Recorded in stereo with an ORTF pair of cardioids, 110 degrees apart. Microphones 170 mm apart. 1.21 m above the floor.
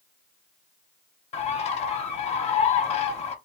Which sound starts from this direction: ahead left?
A bird, at 1.3 s.